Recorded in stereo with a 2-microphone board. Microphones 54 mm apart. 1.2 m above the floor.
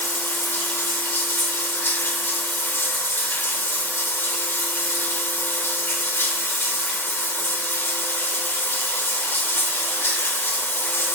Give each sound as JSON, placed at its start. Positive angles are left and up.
{"t": 0.0, "sound": "running water", "side_deg": 50, "distance_m": 0.8}